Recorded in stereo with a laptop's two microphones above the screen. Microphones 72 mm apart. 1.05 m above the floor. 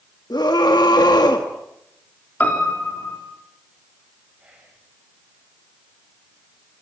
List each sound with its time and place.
0.3 s a scream: 80° left, 1.6 m
2.4 s a piano: 25° left (ahead or behind), 3 m
4.4 s whispering: 15° right (ahead or behind), 5.5 m